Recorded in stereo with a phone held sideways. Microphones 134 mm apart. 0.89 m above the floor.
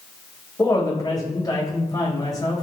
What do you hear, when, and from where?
0.6 s a woman speaking: 30° left (ahead or behind), 4 m